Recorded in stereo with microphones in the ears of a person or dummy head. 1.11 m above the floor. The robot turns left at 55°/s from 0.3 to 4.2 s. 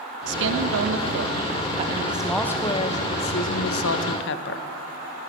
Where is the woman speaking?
65° right, 0.8 m; by 4.7 s 80° left, 0.8 m.